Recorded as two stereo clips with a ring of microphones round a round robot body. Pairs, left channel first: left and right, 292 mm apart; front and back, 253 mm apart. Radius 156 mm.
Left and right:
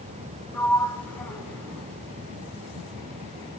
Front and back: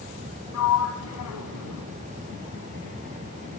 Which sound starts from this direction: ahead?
A sliding door, at 0.5 s.